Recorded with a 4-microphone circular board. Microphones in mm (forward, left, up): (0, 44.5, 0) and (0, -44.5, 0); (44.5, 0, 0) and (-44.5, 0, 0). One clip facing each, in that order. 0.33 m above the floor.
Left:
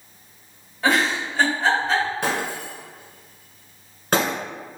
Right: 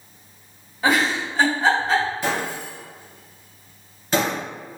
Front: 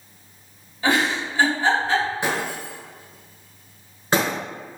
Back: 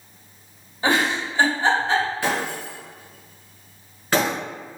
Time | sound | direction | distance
0.8 | a giggle | 175° right | 1.5 m
2.2 | breaking glass | 70° left | 1.8 m